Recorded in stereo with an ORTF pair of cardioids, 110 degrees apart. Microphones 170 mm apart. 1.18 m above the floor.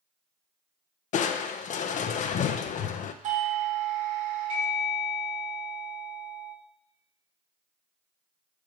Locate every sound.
1.1 s crushing: 50° left, 0.6 m
3.2 s a doorbell: 55° right, 1.5 m